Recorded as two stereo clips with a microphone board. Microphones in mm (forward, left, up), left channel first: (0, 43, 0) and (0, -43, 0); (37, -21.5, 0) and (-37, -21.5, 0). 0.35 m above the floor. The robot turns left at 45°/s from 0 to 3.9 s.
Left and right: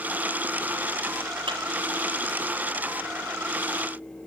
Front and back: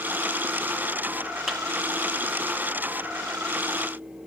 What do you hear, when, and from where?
1.5 s a clap: 95° right, 3 m; by 1.6 s 100° right, 3 m